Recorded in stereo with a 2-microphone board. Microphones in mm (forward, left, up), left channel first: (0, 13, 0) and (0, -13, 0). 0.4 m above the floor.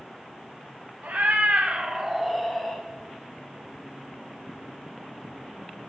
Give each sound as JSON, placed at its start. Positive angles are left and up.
{"t": 1.0, "sound": "a cat meowing", "side_deg": -80, "distance_m": 1.1}